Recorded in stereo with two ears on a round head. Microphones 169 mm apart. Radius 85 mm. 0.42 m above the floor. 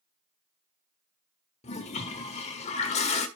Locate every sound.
1.6 s a toilet flushing: 35° left (ahead or behind), 1.5 m